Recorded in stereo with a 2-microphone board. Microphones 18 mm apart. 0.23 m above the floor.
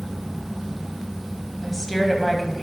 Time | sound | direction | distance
1.6 | a woman speaking | 5° left (ahead or behind) | 1.1 m